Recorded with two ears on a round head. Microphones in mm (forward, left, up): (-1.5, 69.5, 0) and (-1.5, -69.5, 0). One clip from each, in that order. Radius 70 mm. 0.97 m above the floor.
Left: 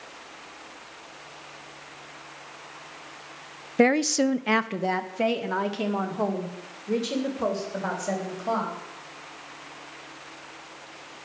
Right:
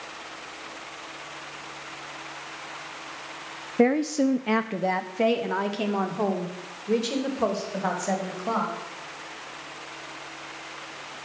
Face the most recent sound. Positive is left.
turn(degrees=-10)  # may be behind; listen again after turning